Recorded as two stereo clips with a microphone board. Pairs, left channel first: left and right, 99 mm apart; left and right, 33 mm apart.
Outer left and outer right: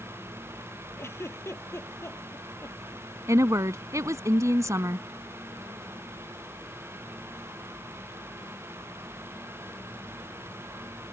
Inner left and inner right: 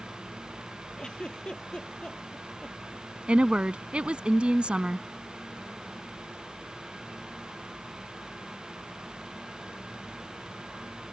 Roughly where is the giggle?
Left.